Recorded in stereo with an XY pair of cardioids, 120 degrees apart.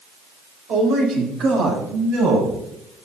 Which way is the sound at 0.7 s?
65° right.